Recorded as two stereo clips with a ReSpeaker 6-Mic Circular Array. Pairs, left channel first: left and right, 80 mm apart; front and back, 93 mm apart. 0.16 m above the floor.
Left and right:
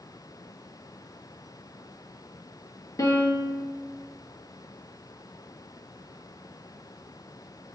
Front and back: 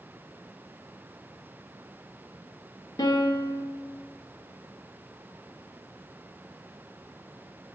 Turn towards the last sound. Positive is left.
turn(degrees=40)